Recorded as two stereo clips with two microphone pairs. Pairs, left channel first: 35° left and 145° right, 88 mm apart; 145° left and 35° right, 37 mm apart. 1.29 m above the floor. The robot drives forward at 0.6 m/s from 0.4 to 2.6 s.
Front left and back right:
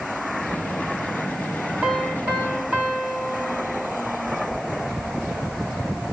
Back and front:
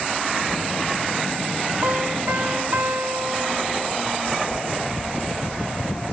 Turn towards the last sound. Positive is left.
turn(degrees=-70)